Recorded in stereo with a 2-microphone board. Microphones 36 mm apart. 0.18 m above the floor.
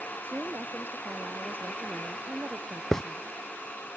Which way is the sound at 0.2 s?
70° right (ahead or behind).